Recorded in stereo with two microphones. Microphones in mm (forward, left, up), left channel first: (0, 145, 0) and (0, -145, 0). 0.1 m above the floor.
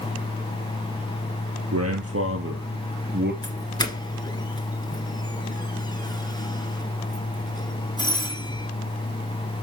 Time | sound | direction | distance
1.7 | a man speaking | 55° right (ahead or behind) | 2.5 m
3.4 | a doorbell | 15° left (ahead or behind) | 1.9 m